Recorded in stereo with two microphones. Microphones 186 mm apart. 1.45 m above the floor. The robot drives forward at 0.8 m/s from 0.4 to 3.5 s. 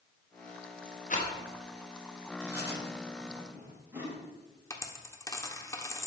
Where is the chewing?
15° right (ahead or behind), 6.5 m.